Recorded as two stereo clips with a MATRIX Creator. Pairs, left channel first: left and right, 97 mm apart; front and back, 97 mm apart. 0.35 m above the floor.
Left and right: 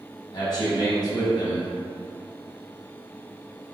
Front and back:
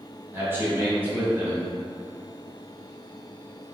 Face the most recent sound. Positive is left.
turn(degrees=120)